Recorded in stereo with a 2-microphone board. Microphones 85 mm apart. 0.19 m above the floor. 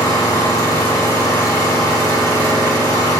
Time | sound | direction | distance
0.0 | an engine running | 40° left (ahead or behind) | 2 m